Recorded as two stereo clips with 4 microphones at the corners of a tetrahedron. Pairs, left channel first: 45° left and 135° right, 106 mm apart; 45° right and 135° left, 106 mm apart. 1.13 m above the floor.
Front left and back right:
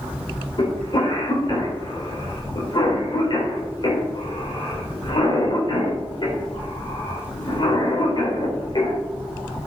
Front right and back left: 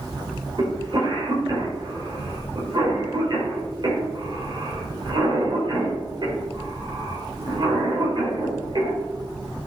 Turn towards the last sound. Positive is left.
turn(degrees=90)